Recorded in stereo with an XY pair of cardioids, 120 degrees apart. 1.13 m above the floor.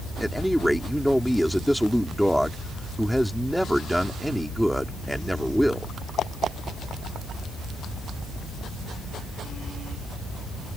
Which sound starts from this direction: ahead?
A man speaking, at 0.2 s.